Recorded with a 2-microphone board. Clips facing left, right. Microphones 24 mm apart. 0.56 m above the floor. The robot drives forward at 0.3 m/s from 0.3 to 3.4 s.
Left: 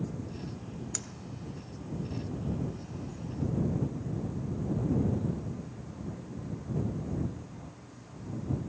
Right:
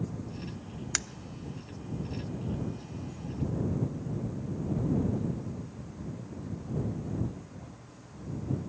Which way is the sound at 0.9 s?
60° right (ahead or behind).